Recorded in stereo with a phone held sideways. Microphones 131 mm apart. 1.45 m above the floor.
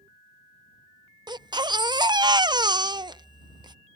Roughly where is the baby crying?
Right.